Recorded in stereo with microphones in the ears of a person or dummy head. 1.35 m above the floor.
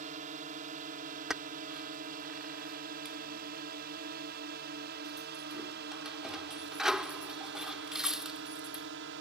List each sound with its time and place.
0.0 s a drone: 35° right (ahead or behind); by 9.2 s 55° right (ahead or behind)
1.3 s keys jangling: 10° right (ahead or behind)